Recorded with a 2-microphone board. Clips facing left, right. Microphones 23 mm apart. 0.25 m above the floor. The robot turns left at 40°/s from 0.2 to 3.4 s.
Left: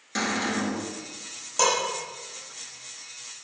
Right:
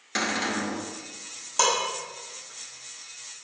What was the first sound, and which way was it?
A cupboard door, 25° right (ahead or behind).